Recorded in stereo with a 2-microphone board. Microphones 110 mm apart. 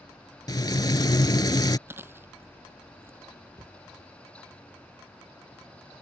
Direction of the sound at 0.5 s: 40° left (ahead or behind).